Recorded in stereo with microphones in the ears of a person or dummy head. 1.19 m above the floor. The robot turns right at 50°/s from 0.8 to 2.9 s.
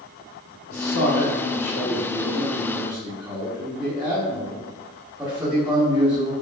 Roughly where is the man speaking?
Left.